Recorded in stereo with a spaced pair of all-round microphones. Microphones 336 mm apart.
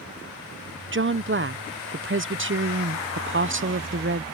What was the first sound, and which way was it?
A woman speaking, 35° right (ahead or behind).